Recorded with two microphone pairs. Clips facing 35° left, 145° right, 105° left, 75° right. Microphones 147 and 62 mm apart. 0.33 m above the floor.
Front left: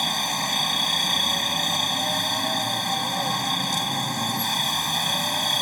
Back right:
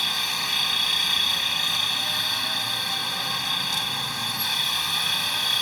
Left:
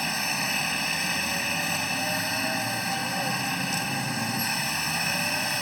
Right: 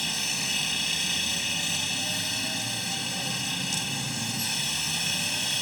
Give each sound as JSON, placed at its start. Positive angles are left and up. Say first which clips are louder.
{"t": 0.0, "sound": "a helicopter", "louder": "front left 6 dB, left 5 dB", "azimuth_deg": 65}